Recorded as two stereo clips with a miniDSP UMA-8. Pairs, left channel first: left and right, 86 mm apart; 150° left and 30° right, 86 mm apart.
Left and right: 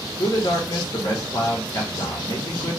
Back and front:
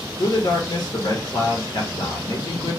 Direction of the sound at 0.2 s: 120° left.